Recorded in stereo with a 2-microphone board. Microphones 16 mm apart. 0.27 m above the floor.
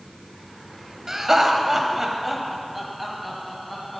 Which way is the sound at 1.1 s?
35° right (ahead or behind).